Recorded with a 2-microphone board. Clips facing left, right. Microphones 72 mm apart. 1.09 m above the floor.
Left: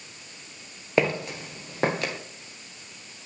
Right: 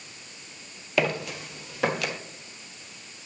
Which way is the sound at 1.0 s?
30° left (ahead or behind).